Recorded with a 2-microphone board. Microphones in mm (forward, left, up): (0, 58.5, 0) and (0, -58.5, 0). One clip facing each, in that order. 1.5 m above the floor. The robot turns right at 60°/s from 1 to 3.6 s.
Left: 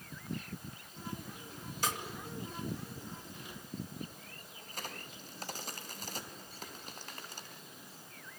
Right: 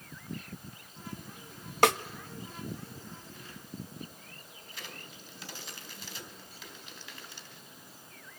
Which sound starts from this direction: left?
A crack, at 4.7 s.